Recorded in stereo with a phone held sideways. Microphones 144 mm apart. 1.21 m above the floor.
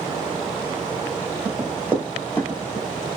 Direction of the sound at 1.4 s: 30° right (ahead or behind).